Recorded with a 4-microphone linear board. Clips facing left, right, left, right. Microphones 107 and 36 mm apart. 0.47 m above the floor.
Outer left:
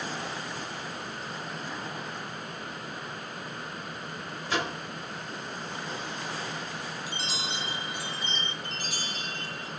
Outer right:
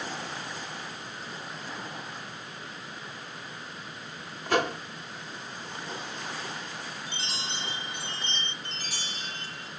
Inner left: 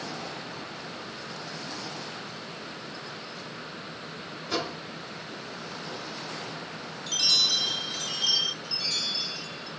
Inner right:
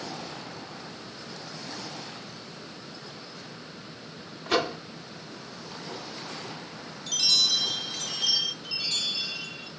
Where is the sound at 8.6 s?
30° right (ahead or behind), 2 m.